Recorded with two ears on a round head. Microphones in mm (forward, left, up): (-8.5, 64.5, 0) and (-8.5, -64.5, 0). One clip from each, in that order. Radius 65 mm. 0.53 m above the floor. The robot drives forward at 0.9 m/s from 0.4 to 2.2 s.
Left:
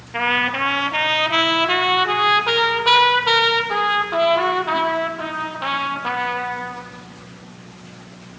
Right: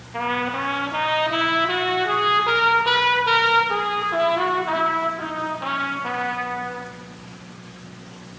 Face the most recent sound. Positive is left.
turn(degrees=40)  # may be behind; listen again after turning